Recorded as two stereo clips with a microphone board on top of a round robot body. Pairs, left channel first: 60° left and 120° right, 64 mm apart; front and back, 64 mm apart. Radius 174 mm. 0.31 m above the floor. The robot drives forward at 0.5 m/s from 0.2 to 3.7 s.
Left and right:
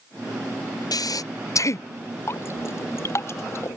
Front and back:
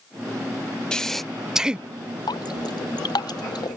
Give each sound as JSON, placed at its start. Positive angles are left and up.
{"t": 0.9, "sound": "breathing", "azimuth_deg": 80}
{"t": 2.3, "sound": "dripping", "azimuth_deg": 10}